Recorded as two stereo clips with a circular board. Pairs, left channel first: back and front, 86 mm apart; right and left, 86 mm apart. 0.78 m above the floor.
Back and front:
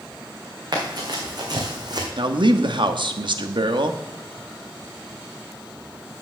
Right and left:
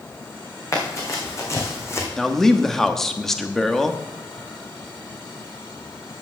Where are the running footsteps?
40° right, 3 m; by 2.1 s 35° right, 2.0 m.